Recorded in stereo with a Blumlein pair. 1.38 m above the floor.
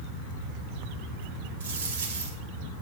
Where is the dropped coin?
65° right, 2.5 m.